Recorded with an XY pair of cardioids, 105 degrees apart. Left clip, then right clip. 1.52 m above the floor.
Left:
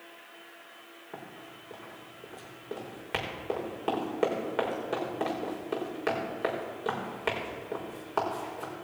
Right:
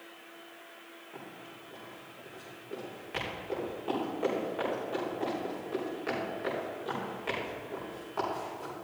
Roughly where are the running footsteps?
Ahead left.